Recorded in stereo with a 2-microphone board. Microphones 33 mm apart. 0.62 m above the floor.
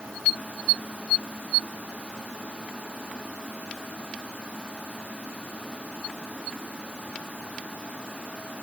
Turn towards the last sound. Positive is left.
No sound to turn to.